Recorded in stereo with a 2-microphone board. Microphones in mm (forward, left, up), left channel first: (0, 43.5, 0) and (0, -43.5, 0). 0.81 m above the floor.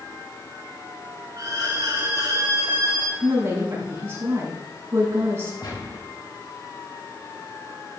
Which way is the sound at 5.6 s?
60° left (ahead or behind).